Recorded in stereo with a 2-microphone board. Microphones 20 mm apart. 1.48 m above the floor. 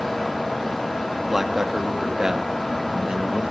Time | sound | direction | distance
1.3 | a man speaking | 15° right (ahead or behind) | 2.5 m